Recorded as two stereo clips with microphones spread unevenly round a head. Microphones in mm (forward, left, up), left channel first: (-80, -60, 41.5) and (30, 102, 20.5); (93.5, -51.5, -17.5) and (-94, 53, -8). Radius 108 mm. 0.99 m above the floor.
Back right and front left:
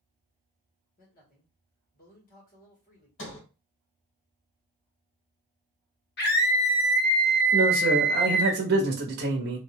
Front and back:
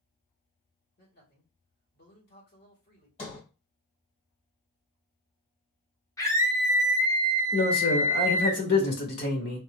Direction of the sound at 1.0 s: 70° right.